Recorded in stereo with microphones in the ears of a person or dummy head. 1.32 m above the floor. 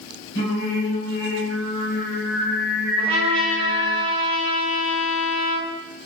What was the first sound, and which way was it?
Singing, 60° left (ahead or behind).